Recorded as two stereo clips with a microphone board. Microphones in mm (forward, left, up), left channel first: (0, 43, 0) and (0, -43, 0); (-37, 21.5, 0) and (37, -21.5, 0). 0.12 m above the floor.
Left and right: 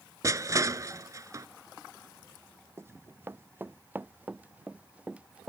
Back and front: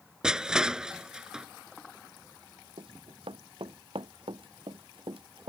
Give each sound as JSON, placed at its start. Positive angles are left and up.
{"t": 0.2, "sound": "crushing", "azimuth_deg": -105}
{"t": 2.8, "sound": "running footsteps", "azimuth_deg": -30}